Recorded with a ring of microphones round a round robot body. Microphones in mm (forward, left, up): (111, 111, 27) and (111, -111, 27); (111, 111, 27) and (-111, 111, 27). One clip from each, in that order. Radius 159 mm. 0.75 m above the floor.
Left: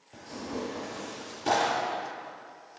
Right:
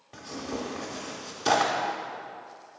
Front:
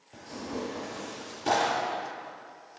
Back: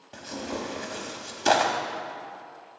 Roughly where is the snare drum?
I don't hear a snare drum.